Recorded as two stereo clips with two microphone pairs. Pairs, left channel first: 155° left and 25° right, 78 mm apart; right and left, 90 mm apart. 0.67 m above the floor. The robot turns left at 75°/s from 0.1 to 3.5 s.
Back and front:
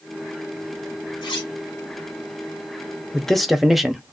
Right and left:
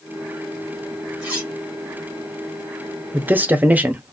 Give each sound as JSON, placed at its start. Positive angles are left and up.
{"t": 1.2, "sound": "cutlery clinking", "azimuth_deg": 165, "distance_m": 1.9}
{"t": 3.1, "sound": "a man speaking", "azimuth_deg": 90, "distance_m": 0.6}